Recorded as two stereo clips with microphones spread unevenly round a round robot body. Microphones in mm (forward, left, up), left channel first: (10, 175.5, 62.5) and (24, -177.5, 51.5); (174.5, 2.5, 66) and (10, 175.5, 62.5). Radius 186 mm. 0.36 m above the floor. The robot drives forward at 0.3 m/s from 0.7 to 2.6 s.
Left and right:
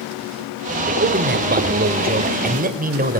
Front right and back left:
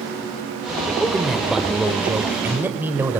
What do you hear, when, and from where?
1.0 s a man speaking: 135° right, 2.0 m; by 3.2 s 145° right, 2 m